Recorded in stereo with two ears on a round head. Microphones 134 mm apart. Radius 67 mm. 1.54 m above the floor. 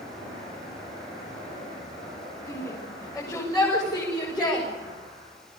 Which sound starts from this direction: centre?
A shout, at 2.5 s.